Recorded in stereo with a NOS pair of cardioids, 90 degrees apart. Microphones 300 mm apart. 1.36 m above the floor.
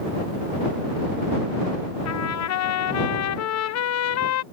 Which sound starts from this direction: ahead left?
A trumpet, at 2.0 s.